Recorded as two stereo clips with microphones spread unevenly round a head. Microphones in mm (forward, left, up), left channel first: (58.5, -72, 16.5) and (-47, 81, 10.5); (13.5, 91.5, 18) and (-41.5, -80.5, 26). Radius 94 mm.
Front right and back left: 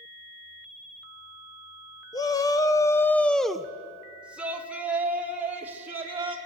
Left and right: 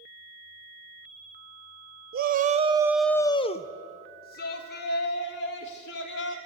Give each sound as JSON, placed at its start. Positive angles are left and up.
{"t": 2.1, "sound": "a shout", "azimuth_deg": -125, "distance_m": 0.8}